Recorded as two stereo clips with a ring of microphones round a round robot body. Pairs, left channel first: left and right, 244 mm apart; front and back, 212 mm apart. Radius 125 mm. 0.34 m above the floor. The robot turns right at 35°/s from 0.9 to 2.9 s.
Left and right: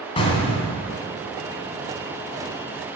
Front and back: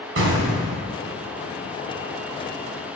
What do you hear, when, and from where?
0.2 s an explosion: 160° left, 1.5 m